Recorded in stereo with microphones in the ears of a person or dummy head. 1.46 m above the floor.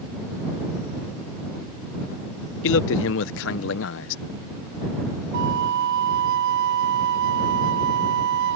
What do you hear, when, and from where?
2.6 s a man speaking: 70° left (ahead or behind)
5.3 s a flute: 60° right (ahead or behind)